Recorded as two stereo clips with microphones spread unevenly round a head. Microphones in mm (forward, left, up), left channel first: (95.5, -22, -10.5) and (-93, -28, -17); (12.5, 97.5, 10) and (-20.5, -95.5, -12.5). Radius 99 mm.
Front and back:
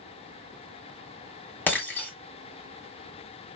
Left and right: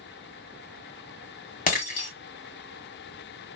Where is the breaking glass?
80° left, 1.7 m.